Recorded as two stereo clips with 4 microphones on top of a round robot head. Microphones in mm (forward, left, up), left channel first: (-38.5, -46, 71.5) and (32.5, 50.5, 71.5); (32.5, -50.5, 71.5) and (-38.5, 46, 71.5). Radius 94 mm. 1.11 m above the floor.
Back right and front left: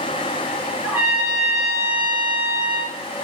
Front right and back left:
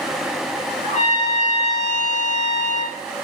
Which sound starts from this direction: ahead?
A trumpet, at 0.8 s.